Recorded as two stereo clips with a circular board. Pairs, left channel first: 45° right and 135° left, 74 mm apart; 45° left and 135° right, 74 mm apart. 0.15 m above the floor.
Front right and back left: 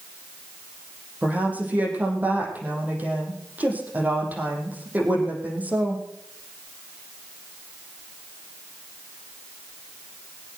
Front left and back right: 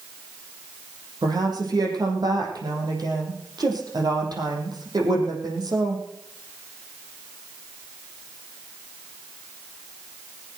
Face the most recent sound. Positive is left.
turn(degrees=-155)